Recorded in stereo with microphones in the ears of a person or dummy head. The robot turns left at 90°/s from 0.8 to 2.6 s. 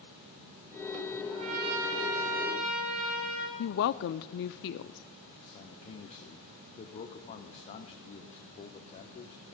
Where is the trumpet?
25° right, 2 m; by 3.5 s 140° right, 2 m.